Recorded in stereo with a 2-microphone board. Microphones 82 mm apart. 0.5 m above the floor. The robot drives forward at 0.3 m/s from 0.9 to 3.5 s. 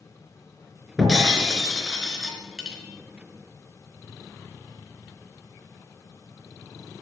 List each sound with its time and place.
1.0 s breaking glass: 5° right (ahead or behind), 4 m